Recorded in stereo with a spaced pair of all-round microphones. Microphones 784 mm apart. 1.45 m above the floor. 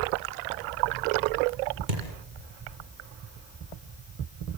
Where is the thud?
70° right (ahead or behind), 6.5 m.